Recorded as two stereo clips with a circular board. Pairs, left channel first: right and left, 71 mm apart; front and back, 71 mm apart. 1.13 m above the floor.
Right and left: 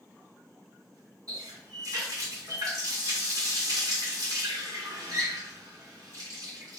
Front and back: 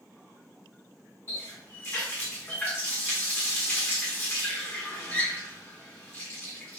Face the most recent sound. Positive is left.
turn(degrees=55)